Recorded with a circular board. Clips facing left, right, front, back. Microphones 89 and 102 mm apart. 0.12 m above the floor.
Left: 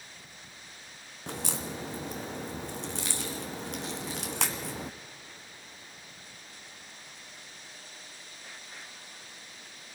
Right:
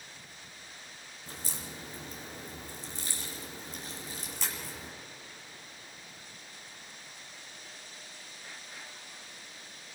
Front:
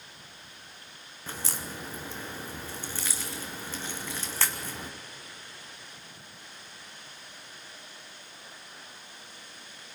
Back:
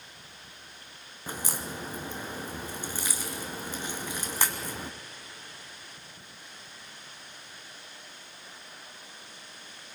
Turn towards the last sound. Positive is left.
turn(degrees=105)